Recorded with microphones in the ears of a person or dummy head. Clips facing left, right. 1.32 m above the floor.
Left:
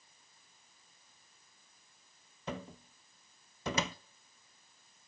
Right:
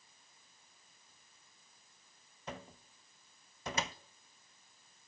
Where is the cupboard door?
55° left (ahead or behind), 0.6 m.